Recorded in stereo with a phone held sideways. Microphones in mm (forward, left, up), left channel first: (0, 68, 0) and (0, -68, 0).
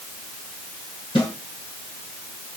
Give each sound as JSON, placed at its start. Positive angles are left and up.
{"t": 1.1, "sound": "a snare drum", "side_deg": 40, "distance_m": 5.5}